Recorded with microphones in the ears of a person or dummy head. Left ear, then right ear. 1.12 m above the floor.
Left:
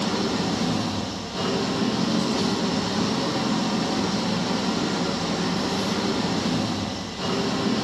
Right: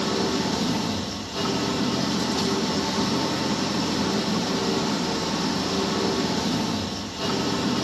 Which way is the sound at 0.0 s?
15° right (ahead or behind).